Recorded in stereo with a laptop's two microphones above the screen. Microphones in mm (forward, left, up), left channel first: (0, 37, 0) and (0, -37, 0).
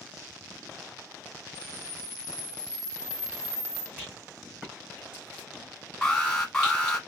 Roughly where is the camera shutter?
Centre.